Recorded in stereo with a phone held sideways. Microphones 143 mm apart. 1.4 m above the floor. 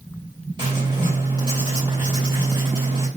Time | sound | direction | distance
0.6 | writing | 35° right (ahead or behind) | 3 m